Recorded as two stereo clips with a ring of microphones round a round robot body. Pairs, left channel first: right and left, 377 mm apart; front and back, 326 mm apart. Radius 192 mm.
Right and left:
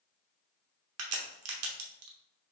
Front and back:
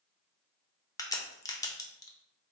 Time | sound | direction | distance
1.0 | a crack | 75° left | 0.8 m